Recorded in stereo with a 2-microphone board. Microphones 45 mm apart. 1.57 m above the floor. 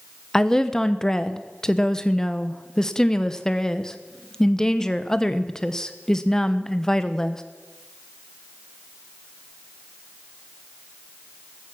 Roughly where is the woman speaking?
Centre.